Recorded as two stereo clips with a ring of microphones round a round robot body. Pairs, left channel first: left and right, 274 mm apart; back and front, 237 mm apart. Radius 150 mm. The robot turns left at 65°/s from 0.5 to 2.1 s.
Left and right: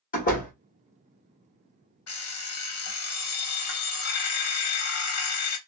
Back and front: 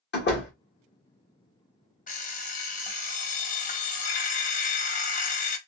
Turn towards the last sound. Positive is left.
turn(degrees=120)